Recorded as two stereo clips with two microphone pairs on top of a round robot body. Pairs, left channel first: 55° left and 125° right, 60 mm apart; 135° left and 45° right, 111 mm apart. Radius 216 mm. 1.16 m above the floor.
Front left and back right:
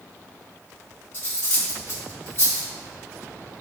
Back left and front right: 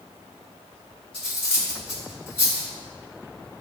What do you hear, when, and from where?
1.1 s cutlery clinking: 95° left, 1.5 m